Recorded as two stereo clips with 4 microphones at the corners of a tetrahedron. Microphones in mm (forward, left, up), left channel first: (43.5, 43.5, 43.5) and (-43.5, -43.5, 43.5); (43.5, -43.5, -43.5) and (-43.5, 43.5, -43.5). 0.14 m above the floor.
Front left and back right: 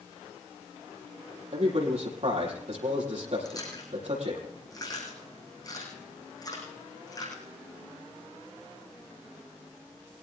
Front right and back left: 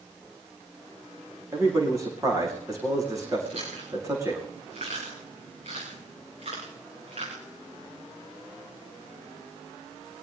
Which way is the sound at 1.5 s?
160° right.